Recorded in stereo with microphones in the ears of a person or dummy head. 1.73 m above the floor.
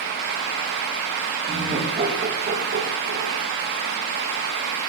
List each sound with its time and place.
1.5 s laughter: 30° right (ahead or behind), 3.5 m; by 3.5 s 75° right (ahead or behind), 2.5 m